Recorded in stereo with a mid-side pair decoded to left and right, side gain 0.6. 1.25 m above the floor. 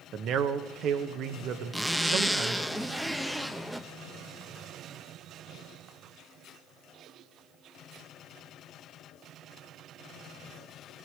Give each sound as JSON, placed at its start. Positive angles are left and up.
{"t": 0.1, "sound": "a man speaking", "azimuth_deg": -55, "distance_m": 1.3}
{"t": 1.7, "sound": "a zipper", "azimuth_deg": 0, "distance_m": 0.8}